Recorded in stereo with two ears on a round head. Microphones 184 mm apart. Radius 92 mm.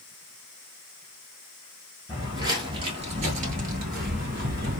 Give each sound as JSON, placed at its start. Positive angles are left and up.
{"t": 2.1, "sound": "footsteps", "side_deg": -15, "distance_m": 1.4}